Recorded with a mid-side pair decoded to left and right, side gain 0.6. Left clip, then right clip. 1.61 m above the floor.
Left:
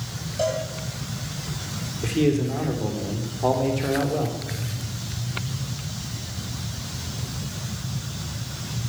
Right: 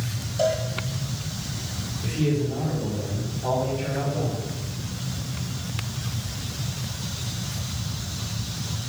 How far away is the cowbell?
About 10 m.